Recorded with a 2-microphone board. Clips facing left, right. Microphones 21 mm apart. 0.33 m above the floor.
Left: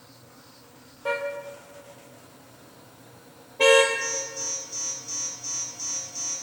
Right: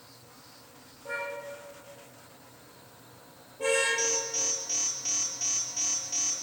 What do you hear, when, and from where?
1.1 s a car horn: 75° left (ahead or behind), 4 m
4.0 s an alarm: 60° right (ahead or behind), 7.5 m